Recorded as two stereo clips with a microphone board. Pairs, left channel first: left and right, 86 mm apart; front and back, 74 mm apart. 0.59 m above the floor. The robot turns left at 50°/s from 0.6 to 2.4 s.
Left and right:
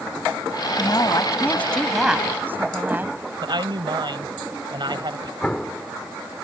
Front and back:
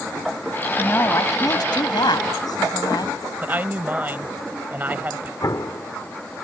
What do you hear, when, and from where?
0.8 s a woman speaking: 60° left; by 3.2 s 20° right
3.4 s a woman speaking: 115° right
5.4 s an explosion: 15° left